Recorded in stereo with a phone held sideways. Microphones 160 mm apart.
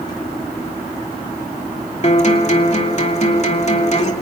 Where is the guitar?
45° left (ahead or behind), 2.5 m.